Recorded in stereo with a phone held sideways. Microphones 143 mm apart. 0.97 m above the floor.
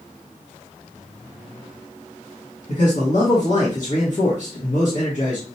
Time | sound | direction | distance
2.7 | a man speaking | 55° left (ahead or behind) | 1.6 m